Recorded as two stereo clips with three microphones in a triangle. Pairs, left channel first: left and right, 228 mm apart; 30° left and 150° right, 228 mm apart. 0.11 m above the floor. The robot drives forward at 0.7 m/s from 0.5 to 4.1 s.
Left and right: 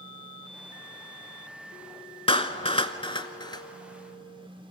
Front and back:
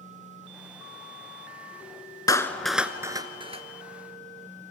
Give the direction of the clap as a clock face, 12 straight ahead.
9 o'clock.